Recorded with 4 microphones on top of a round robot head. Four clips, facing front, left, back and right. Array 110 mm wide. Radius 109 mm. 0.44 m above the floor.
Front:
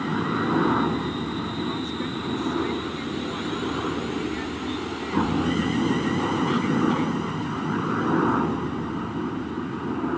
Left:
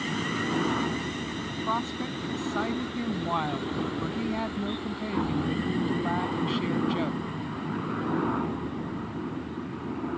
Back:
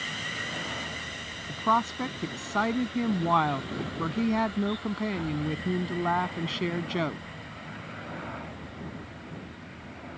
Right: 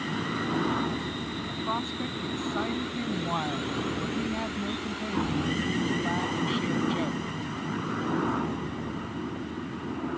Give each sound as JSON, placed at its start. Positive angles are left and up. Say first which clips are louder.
{"t": 0.0, "sound": "a helicopter", "louder": "left 1 dB, front 12 dB", "azimuth_deg": 10}
{"t": 1.5, "sound": "a woman speaking", "louder": "left 3 dB, back 3 dB", "azimuth_deg": 180}